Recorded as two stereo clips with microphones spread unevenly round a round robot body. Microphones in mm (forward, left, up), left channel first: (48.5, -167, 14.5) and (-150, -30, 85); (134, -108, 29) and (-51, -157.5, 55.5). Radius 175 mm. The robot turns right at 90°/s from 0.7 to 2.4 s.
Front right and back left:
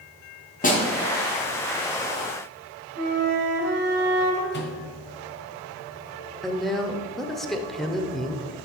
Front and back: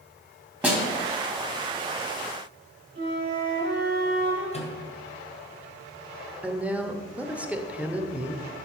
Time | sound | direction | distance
0.6 | a snare drum | 80° right | 3 m
3.0 | a flute | 155° left | 2 m
4.5 | a microwave | 30° right | 1.7 m
6.4 | a woman speaking | 70° right | 0.9 m